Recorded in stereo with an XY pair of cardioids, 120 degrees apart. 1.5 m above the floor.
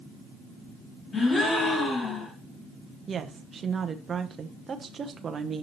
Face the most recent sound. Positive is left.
turn(degrees=-35)